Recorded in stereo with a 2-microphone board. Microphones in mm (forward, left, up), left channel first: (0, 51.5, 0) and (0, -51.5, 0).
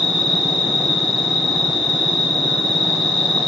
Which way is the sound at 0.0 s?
80° left.